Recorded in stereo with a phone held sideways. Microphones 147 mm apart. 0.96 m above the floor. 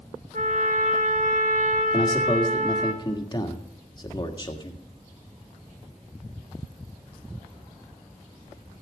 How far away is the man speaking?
About 1.7 m.